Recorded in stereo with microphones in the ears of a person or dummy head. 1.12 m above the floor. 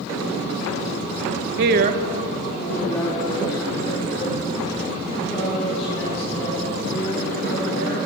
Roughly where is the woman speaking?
Right.